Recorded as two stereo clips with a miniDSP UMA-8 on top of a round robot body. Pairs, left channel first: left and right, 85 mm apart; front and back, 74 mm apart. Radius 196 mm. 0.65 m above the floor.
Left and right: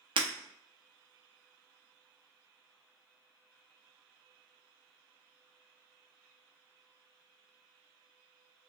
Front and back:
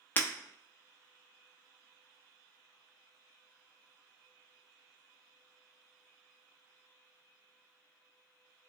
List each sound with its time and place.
0.2 s breaking glass: 65° right, 0.6 m